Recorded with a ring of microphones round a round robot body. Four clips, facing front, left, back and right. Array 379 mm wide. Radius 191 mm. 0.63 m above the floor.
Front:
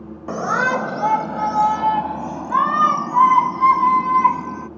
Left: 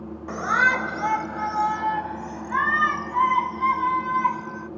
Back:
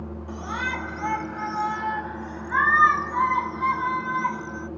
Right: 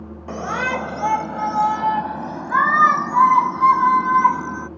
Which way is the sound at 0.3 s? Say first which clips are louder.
Left 2 dB, front 12 dB; 15° right.